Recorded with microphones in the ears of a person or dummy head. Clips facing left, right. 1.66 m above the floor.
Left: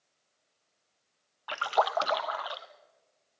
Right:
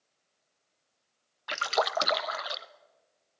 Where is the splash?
30° right (ahead or behind), 0.9 m.